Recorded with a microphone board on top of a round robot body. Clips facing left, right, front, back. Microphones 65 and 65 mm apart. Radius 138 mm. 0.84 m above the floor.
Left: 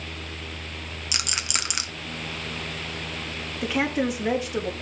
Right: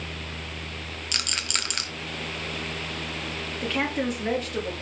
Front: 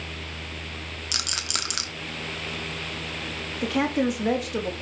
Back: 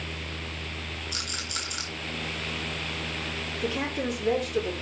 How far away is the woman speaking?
About 2.5 m.